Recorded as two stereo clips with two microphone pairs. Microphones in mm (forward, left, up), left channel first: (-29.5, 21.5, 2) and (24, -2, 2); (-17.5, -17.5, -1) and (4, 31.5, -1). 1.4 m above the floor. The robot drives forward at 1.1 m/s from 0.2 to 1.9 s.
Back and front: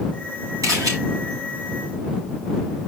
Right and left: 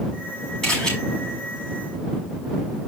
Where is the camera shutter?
30° right, 6 m; by 0.9 s 35° right, 5.5 m.